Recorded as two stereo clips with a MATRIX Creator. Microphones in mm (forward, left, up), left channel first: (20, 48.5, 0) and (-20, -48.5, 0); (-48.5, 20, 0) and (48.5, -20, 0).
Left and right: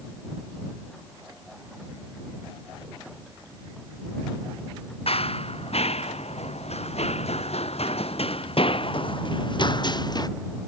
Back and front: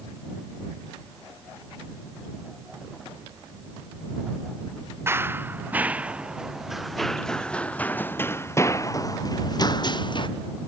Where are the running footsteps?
45° left; by 10.3 s 115° left.